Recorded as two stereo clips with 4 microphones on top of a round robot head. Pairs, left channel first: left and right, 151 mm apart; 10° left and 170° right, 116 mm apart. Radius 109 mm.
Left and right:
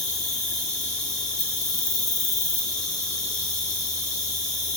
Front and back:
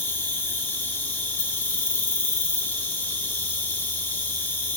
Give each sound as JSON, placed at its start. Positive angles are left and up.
{"t": 0.0, "sound": "an insect", "azimuth_deg": 75, "distance_m": 1.0}